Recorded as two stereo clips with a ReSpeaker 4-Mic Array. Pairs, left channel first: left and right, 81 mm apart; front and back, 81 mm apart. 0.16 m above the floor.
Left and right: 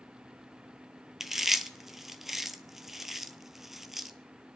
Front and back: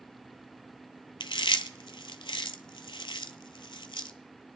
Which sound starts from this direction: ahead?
Chewing, at 1.2 s.